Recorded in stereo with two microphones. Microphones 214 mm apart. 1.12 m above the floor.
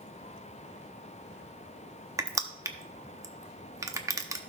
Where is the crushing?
15° right (ahead or behind), 0.7 m.